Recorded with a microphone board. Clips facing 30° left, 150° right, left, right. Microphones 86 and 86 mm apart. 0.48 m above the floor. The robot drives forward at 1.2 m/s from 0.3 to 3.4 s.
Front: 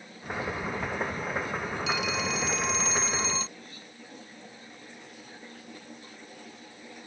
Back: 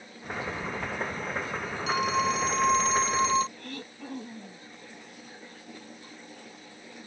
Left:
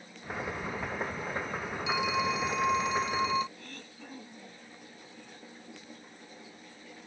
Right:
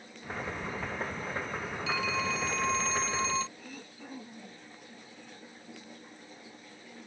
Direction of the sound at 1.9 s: 165° left.